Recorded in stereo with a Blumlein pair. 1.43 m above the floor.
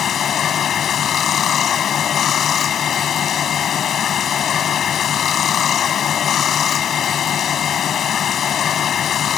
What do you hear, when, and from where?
0.0 s running water: 25° left